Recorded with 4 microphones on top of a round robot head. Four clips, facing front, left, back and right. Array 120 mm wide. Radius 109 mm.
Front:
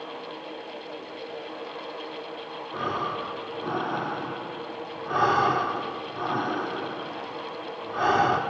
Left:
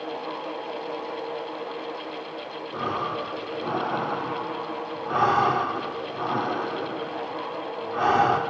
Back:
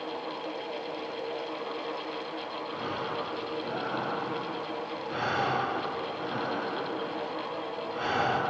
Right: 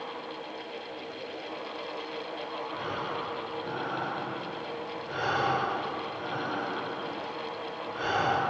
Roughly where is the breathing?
Ahead left.